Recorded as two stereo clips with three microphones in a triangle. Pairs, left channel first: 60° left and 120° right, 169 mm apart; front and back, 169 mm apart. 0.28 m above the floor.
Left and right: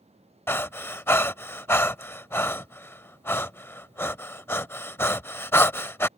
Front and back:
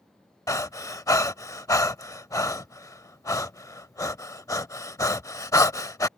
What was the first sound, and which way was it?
Breathing, 15° left.